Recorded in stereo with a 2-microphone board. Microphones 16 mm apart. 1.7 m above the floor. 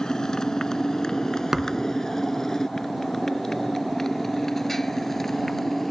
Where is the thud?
20° right (ahead or behind).